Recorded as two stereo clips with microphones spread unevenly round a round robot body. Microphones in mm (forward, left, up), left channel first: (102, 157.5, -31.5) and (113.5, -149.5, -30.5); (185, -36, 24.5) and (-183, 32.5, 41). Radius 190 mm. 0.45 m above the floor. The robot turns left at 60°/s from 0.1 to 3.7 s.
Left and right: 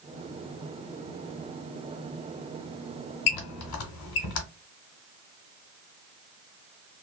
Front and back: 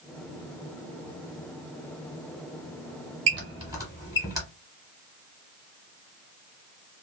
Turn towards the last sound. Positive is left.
turn(degrees=90)